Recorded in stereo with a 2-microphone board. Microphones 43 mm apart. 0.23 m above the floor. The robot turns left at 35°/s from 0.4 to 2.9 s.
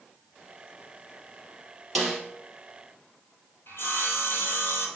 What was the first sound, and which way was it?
A snare drum, 5° right (ahead or behind).